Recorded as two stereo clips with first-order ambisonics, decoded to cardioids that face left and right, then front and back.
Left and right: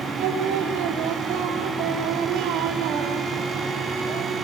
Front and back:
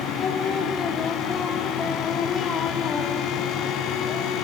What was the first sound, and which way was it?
Singing, 65° right.